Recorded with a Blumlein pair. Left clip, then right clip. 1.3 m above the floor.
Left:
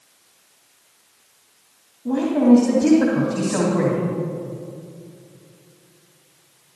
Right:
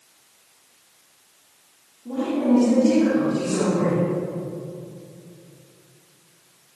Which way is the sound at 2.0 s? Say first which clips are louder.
Left 6 dB; 50° left.